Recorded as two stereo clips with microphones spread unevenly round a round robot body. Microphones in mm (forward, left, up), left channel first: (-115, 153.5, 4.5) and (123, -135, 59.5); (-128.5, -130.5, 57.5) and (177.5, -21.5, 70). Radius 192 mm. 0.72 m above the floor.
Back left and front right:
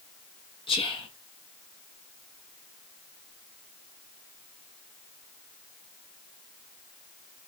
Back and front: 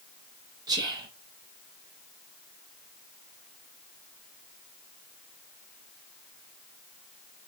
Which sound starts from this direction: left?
Whispering, at 0.7 s.